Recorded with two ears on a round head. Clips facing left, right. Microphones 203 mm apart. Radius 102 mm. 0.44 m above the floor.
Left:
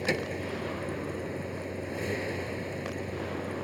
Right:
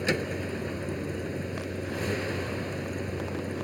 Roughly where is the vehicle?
Centre.